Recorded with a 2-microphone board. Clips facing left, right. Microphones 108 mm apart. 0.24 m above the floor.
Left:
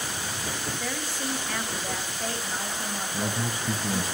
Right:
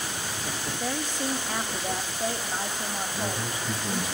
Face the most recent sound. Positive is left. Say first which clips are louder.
# left 1 dB
turn(degrees=45)  # may be behind; listen again after turning